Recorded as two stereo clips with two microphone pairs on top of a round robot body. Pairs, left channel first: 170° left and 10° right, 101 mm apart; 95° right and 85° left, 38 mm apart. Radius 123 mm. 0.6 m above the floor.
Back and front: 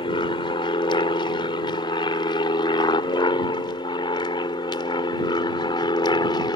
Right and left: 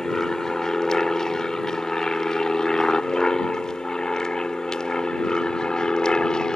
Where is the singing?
I don't hear singing.